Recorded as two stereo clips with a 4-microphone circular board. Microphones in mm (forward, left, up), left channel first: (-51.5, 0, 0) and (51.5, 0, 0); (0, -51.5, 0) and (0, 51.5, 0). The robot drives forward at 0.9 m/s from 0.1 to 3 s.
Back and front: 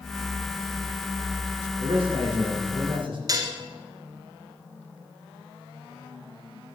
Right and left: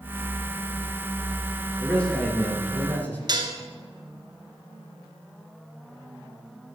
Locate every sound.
1.8 s a man speaking: 15° right, 3.5 m; by 3.2 s 20° right, 2.5 m
3.3 s dishes clattering: 50° left, 1.7 m